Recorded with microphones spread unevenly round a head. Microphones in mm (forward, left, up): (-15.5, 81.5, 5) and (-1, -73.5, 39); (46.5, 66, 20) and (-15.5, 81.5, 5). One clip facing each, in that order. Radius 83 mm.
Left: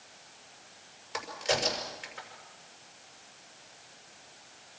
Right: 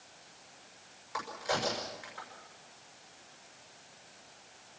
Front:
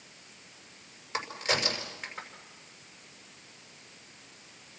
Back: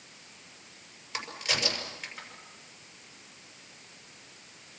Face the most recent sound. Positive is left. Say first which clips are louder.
# left 3 dB, front 3 dB
turn(degrees=35)